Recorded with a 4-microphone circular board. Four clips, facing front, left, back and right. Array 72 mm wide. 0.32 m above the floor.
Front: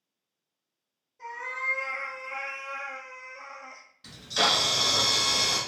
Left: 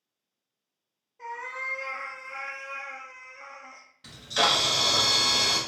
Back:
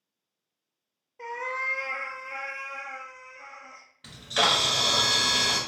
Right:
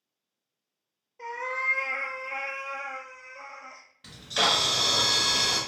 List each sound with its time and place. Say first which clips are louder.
1.2 s a cat meowing: right 4 dB, back 3 dB; 155° right, 0.6 m; by 3.9 s 50° right, 1.2 m
4.0 s a camera shutter: left 1 dB, back 2 dB; 170° right, 1.0 m